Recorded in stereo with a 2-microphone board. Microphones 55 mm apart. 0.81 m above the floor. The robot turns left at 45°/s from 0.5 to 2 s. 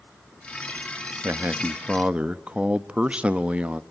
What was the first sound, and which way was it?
A man speaking, 120° right.